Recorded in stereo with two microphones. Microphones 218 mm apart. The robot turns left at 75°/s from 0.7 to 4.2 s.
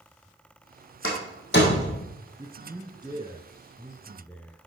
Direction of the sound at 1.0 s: 75° left (ahead or behind).